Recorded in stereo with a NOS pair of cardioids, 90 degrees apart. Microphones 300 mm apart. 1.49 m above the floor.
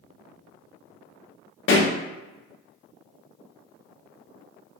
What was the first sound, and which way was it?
A pop, 45° left.